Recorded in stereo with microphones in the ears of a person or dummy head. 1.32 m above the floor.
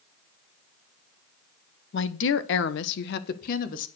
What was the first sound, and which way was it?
A woman speaking, 55° left (ahead or behind).